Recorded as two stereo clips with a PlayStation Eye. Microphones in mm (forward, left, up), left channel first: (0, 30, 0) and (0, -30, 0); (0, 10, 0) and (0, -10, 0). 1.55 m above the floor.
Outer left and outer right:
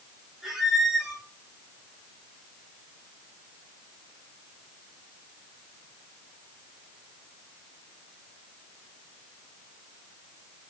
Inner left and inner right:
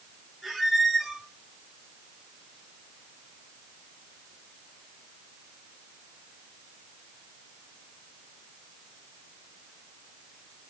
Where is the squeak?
5° right (ahead or behind), 7 m.